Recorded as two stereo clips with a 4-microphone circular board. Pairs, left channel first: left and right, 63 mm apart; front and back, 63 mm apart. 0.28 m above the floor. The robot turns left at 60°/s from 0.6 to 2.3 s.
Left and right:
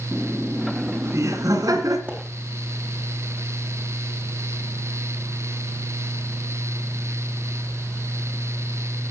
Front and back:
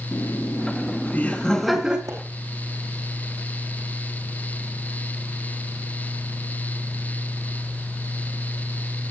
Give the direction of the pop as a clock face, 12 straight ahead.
5 o'clock.